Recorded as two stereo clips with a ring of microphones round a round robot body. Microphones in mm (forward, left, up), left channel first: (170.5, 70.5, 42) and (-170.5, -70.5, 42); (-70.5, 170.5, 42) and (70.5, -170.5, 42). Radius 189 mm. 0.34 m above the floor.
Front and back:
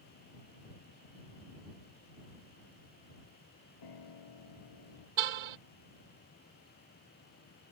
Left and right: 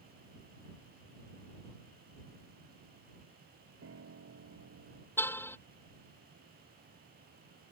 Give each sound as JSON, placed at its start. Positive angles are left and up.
{"t": 3.8, "sound": "a piano", "azimuth_deg": -10}
{"t": 5.2, "sound": "a car horn", "azimuth_deg": -165}